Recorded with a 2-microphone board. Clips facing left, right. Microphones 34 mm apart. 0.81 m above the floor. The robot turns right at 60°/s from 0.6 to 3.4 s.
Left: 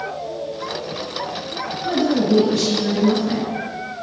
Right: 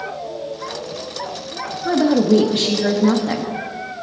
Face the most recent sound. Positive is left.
turn(degrees=-50)